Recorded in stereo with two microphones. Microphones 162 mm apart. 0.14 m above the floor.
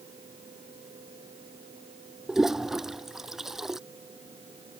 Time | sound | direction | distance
2.3 | a toilet flushing | 5° right (ahead or behind) | ?